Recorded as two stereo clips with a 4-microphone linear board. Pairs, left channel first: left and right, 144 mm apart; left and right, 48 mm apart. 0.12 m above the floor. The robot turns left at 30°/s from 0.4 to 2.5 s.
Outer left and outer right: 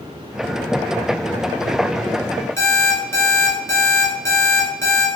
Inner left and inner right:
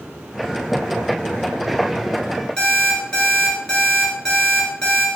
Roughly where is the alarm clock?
Centre.